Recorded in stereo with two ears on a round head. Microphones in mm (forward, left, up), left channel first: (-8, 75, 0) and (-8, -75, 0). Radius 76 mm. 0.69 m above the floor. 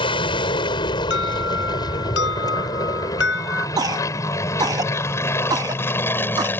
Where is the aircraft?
30° left (ahead or behind); by 6.6 s 10° left (ahead or behind).